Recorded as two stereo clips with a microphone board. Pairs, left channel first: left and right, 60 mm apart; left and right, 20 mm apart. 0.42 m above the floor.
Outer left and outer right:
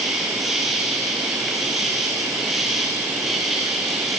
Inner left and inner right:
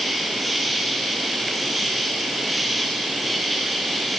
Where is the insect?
5° right (ahead or behind), 4 m.